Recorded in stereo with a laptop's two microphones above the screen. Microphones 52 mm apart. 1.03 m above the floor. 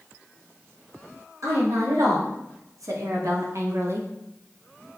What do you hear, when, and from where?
1.4 s a woman speaking: 80° right, 3 m; by 4.1 s 50° right (ahead or behind), 1.0 m